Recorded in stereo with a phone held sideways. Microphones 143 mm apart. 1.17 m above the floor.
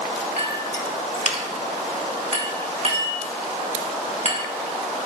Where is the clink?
50° right (ahead or behind), 1.6 m.